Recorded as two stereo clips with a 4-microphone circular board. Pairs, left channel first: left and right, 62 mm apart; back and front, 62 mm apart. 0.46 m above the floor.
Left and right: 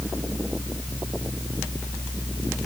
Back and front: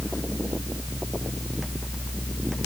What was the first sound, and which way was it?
Only background noise.